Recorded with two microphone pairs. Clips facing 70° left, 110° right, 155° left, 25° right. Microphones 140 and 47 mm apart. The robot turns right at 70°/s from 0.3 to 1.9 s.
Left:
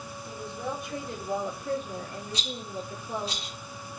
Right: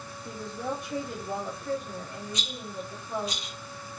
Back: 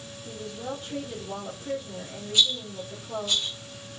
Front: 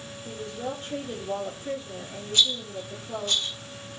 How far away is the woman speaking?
About 1.9 m.